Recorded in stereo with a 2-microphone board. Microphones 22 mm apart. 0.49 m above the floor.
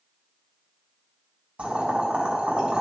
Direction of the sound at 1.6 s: 70° right (ahead or behind).